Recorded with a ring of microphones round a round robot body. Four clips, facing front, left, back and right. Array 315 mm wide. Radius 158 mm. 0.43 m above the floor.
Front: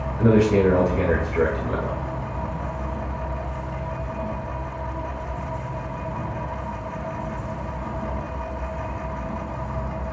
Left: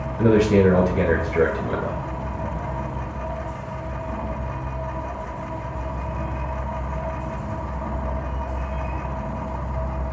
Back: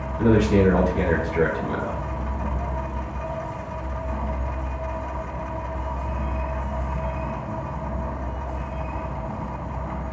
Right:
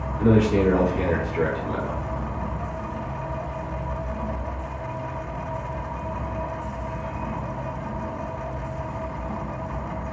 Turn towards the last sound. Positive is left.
turn(degrees=85)